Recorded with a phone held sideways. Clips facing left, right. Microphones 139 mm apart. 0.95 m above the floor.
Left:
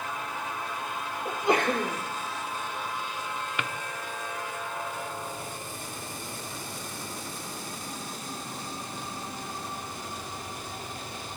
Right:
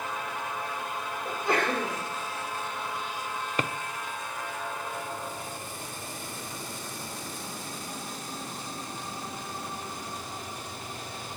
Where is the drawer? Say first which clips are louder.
Right 6 dB; 35° right (ahead or behind), 0.6 m.